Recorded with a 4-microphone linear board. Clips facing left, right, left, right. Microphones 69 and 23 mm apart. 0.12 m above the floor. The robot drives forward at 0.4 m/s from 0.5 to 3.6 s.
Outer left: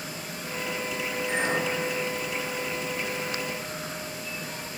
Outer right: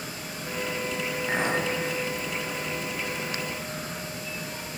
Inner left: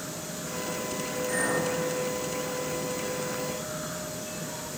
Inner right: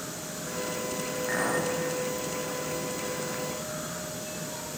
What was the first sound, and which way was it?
A clink, 45° right (ahead or behind).